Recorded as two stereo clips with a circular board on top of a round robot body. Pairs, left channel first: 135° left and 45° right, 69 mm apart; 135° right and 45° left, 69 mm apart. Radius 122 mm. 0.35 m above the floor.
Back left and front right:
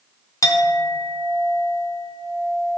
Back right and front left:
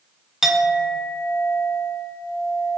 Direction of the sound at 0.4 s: 130° left.